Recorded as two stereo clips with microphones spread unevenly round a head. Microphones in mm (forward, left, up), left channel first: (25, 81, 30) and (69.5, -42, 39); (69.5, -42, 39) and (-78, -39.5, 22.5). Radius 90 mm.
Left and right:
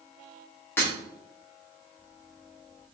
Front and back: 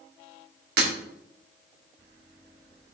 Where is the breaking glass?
170° right, 2 m.